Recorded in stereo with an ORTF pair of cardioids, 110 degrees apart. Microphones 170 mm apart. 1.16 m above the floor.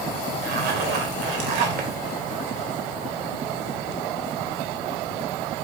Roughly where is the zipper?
Right.